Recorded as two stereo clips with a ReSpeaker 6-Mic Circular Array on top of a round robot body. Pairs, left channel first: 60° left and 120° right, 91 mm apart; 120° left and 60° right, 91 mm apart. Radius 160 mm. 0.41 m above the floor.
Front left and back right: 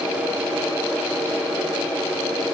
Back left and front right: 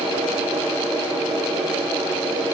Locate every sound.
Only background noise.